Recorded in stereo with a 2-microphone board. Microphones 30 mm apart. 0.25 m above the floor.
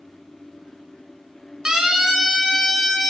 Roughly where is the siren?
Right.